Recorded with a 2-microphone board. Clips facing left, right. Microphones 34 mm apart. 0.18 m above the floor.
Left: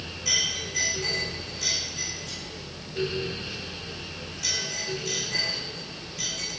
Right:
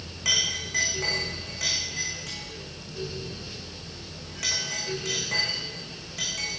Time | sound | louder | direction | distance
0.2 | a clink | right 2 dB | 75° right (ahead or behind) | 7.5 m